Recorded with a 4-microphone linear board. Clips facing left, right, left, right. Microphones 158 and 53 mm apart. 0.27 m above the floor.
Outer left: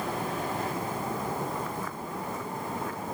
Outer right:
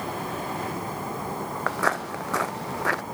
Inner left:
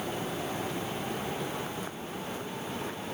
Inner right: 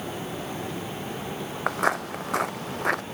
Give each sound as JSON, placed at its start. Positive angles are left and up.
{"t": 1.7, "sound": "footsteps", "side_deg": -85}